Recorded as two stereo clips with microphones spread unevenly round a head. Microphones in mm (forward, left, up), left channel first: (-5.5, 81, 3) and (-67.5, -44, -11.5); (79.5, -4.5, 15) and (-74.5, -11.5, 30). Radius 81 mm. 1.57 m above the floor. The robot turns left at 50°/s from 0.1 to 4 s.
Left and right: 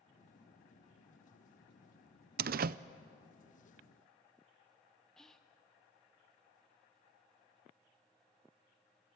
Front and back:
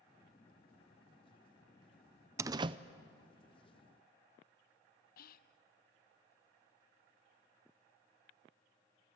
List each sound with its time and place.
2.4 s a door slam: 110° right, 0.5 m; by 2.8 s 130° right, 0.5 m
5.2 s whispering: 25° right, 0.7 m